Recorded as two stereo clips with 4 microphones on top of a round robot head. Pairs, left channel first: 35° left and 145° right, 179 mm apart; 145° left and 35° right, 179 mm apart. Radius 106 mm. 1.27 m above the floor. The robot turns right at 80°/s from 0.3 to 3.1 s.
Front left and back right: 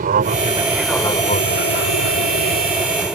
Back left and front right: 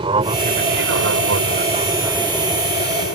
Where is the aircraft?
100° right; by 3.2 s 125° left.